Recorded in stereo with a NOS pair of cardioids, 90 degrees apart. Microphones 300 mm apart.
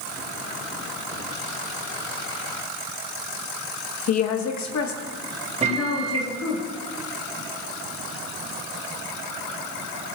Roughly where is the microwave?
Ahead.